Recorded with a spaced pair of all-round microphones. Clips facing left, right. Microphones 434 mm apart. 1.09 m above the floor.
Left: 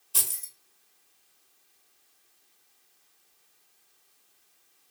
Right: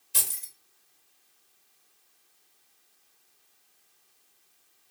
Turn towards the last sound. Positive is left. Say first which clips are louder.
# even
turn(degrees=-40)  # may be behind; listen again after turning